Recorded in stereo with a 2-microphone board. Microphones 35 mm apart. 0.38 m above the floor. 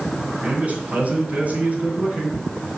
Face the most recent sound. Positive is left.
turn(degrees=-50)  # may be behind; listen again after turning